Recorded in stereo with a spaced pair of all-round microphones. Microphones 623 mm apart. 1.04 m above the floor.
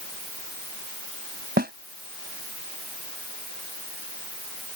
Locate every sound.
1.6 s a snare drum: 15° right (ahead or behind)